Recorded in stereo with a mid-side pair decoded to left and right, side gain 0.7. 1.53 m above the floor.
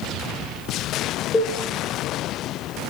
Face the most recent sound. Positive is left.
turn(degrees=15)